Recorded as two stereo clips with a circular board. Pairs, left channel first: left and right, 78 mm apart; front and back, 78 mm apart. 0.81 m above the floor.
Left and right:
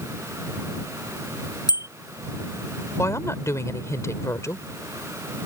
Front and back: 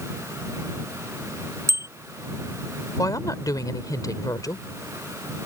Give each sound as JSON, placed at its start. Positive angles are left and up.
{"t": 1.7, "sound": "a bicycle bell", "azimuth_deg": 125}
{"t": 3.0, "sound": "a woman speaking", "azimuth_deg": 40}